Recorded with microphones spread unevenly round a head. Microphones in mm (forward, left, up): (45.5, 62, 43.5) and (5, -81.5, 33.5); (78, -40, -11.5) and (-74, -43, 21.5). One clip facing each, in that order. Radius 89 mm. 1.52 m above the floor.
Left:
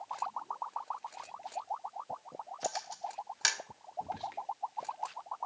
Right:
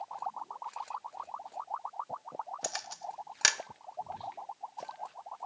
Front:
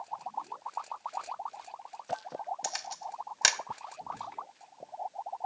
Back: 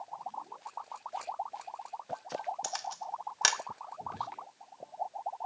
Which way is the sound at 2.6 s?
75° right.